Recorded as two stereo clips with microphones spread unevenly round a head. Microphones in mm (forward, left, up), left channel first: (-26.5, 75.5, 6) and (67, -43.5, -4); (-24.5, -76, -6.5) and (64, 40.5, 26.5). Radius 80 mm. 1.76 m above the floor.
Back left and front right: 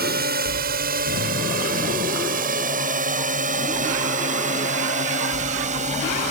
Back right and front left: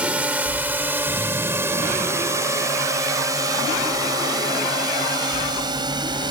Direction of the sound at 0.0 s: 30° right.